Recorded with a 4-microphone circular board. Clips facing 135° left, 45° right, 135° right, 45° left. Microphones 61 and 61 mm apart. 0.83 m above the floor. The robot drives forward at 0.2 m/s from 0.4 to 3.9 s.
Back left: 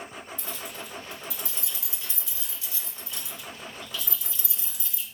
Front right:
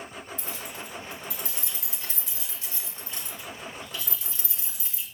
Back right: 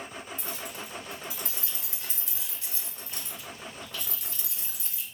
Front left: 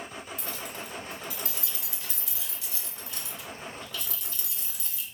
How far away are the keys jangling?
About 1.9 m.